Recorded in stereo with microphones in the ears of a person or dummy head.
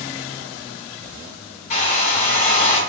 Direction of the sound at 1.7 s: 45° left (ahead or behind).